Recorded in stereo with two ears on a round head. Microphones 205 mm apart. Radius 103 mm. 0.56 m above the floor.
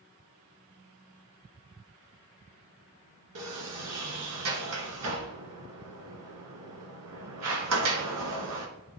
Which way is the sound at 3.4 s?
80° right.